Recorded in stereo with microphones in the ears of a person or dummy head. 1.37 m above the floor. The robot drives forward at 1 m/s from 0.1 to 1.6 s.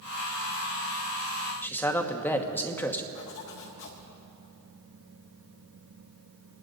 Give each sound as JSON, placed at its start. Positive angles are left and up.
{"t": 1.6, "sound": "a man speaking", "side_deg": 5, "distance_m": 1.0}
{"t": 3.1, "sound": "a zipper", "side_deg": 70, "distance_m": 1.9}